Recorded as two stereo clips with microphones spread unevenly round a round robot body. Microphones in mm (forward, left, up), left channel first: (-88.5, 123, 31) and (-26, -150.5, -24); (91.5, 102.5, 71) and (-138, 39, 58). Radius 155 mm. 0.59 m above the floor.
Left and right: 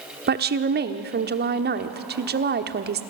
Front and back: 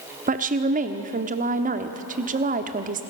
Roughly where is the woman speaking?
Behind right.